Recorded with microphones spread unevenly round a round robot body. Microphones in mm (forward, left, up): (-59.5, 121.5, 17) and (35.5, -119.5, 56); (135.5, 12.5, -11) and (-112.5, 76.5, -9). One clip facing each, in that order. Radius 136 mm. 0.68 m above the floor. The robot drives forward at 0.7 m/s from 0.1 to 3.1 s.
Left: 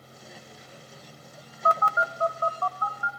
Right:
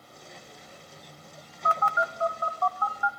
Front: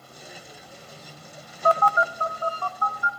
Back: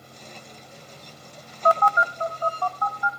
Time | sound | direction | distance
1.6 | a phone buzzing | 165° left | 0.6 m